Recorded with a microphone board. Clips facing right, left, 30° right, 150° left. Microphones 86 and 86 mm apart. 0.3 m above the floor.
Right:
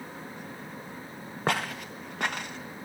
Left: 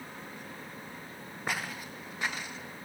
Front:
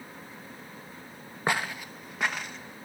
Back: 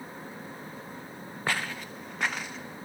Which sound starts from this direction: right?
Footsteps, at 1.5 s.